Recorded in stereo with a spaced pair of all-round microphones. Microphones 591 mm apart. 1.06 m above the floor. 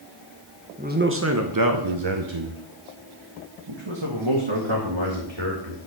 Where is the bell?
No bell in this recording.